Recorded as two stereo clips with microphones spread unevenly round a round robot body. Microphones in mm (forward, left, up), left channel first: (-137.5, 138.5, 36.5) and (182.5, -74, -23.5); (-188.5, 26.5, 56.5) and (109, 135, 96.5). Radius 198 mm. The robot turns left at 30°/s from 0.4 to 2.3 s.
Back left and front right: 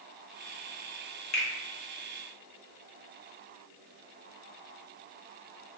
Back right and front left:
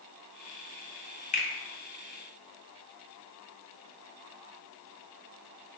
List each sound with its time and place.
1.3 s a finger snap: 155° right, 0.6 m; by 1.5 s 160° right, 0.6 m